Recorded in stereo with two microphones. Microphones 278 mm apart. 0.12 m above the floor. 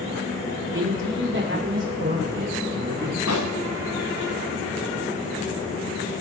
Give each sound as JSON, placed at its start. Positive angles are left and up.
{"t": 0.7, "sound": "a man speaking", "side_deg": -50, "distance_m": 6.5}
{"t": 3.3, "sound": "a pop", "side_deg": 70, "distance_m": 2.0}